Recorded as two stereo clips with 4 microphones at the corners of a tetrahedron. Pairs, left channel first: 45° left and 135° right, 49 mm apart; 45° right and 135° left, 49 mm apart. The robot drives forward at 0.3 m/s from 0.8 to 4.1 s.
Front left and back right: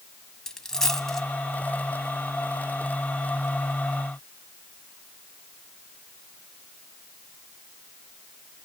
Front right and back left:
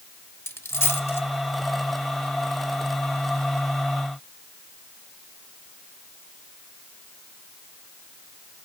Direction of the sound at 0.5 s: 30° right.